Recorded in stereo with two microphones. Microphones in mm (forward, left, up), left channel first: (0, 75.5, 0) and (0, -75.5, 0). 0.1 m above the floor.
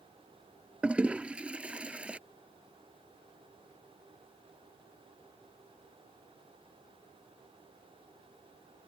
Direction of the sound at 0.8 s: 10° right (ahead or behind).